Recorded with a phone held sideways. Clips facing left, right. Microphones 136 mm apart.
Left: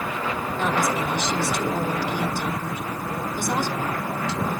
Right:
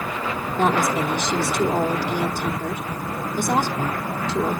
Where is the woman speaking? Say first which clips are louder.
Right 4 dB; 50° right (ahead or behind), 1.8 m.